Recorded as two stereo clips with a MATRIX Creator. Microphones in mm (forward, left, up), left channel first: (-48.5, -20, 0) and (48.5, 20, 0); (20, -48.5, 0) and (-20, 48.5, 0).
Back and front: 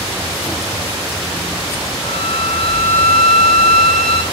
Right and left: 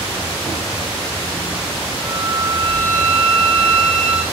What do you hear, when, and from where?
2.0 s a violin: 175° right, 4 m